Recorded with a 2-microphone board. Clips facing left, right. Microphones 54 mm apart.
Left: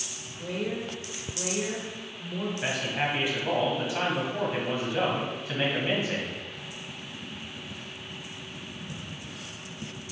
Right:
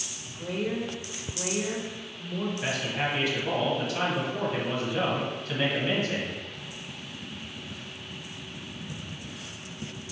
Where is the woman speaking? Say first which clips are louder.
Right 1 dB; 5° right (ahead or behind), 1.0 m.